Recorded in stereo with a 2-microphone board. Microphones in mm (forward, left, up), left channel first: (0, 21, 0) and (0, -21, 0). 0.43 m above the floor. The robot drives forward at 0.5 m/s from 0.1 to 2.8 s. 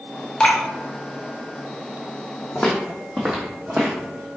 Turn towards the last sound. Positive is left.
turn(degrees=-45)  # may be behind; listen again after turning